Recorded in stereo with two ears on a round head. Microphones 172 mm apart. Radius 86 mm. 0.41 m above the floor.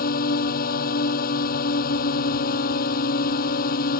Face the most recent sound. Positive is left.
turn(degrees=50)  # may be behind; listen again after turning